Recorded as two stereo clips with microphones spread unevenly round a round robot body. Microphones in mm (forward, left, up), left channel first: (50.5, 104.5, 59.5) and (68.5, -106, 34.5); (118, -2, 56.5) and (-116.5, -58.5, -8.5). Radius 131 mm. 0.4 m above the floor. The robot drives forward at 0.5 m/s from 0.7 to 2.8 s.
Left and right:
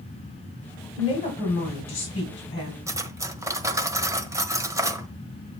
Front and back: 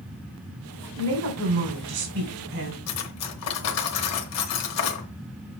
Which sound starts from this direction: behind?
A woman speaking, at 1.0 s.